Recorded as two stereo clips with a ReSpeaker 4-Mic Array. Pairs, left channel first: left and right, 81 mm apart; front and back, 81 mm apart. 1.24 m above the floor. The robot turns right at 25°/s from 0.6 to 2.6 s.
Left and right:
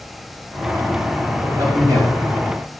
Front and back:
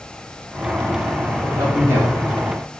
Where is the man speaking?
150° right, 2 m; by 2.8 s 120° right, 2 m.